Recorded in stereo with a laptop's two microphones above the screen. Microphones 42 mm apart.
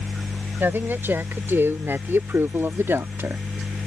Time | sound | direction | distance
0.6 | a woman speaking | 55° right (ahead or behind) | ?